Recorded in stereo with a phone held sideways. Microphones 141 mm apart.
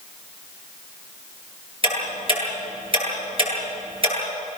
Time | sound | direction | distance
1.8 | ticking | 40° right (ahead or behind) | 10 m